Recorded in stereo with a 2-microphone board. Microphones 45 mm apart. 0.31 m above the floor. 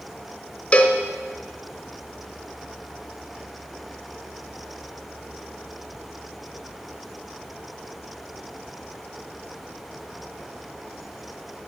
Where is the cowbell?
30° left (ahead or behind), 0.8 m.